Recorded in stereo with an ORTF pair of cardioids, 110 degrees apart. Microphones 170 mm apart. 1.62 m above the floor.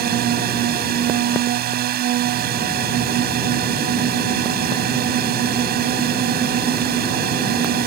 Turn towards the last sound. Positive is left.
turn(degrees=-65)